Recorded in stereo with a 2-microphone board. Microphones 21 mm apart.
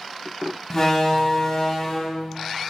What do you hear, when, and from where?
0.7 s a door slam: 15° left (ahead or behind), 0.7 m